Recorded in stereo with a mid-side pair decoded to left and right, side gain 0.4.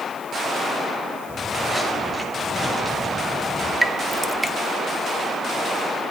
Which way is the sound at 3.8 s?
10° right.